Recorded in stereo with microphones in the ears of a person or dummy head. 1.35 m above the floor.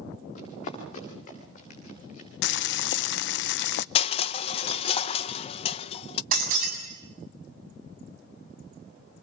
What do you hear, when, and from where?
0.3 s running footsteps: 45° left (ahead or behind), 9 m
2.4 s boiling: 75° left (ahead or behind), 0.6 m
4.0 s crushing: 35° left (ahead or behind), 0.8 m
6.3 s breaking glass: 55° right (ahead or behind), 7 m